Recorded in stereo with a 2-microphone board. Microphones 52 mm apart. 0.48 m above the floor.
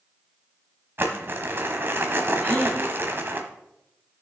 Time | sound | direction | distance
1.0 | crumpling | 45° right (ahead or behind) | 1.2 m
2.4 | a gasp | centre (ahead or behind) | 5 m